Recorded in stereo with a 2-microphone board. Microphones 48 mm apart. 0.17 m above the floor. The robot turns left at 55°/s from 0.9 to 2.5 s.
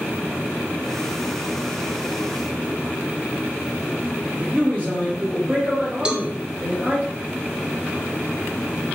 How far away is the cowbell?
About 0.5 m.